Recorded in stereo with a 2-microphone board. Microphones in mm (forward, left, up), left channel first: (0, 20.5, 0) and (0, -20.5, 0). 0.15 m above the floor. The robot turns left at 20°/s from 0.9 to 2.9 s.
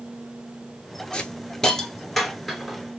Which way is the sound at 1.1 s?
25° left (ahead or behind).